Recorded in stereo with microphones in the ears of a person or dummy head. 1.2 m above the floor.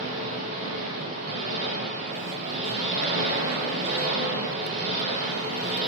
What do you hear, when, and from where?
0.0 s an engine running: 45° right (ahead or behind), 4.5 m